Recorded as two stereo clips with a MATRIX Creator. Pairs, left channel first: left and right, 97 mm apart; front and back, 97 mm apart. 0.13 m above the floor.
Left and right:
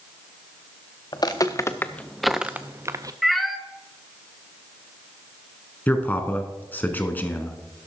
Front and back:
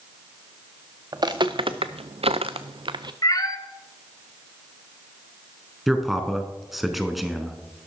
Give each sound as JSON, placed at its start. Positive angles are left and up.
{"t": 1.1, "sound": "footsteps", "azimuth_deg": 135, "distance_m": 0.9}
{"t": 3.2, "sound": "a cat meowing", "azimuth_deg": 0, "distance_m": 0.9}
{"t": 5.9, "sound": "a man speaking", "azimuth_deg": 90, "distance_m": 1.0}